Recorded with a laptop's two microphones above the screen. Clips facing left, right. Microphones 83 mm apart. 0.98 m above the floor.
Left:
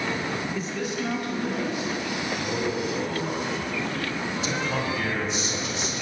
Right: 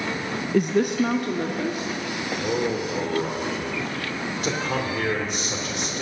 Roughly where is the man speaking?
Right.